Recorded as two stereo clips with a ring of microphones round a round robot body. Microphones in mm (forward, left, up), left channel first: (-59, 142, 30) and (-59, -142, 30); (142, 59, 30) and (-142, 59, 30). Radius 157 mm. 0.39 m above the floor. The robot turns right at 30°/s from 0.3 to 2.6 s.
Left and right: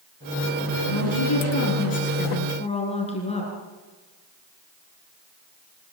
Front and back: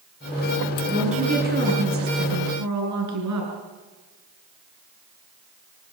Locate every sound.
0.9 s a woman speaking: 105° left, 6 m; by 3.5 s 160° left, 6 m